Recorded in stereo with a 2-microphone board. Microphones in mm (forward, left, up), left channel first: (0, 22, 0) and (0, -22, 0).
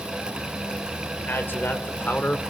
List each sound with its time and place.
1.3 s a man speaking: 55° left (ahead or behind), 2.5 m; by 2.4 s 40° left (ahead or behind), 2 m